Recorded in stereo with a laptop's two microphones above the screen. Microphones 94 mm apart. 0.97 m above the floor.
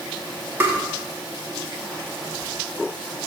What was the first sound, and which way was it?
Tapping, 25° right (ahead or behind).